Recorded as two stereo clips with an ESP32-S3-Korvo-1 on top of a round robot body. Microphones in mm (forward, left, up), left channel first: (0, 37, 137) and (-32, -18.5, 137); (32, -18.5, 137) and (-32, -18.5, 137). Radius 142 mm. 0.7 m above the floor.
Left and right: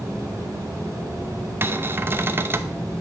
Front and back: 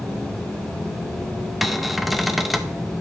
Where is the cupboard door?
95° right, 0.8 m.